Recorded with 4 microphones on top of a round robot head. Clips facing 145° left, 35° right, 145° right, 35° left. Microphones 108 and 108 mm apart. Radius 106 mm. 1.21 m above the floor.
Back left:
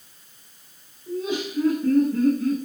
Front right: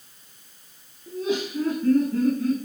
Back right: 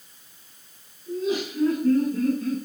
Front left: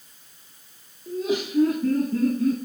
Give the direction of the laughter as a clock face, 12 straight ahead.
11 o'clock.